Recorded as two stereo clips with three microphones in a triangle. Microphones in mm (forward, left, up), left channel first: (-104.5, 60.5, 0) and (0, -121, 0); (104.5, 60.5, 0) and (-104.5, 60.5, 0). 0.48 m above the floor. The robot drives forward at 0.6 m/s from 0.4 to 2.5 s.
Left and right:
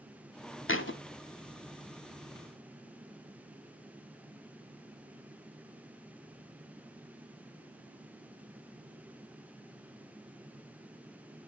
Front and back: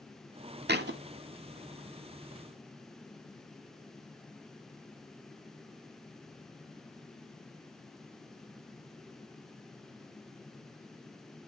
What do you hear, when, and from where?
0.7 s a thud: 140° left, 0.8 m; by 1.0 s 145° left, 0.9 m